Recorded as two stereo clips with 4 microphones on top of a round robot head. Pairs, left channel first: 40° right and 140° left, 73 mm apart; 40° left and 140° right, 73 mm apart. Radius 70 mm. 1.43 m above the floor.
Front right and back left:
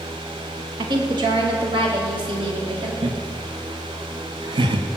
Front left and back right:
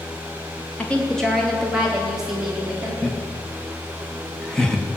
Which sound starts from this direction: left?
A woman speaking, at 0.8 s.